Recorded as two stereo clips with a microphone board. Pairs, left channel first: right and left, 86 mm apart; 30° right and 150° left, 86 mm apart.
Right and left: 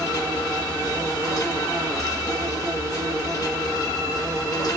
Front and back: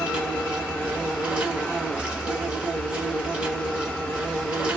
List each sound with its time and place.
0.0 s an insect: 135° right, 1.3 m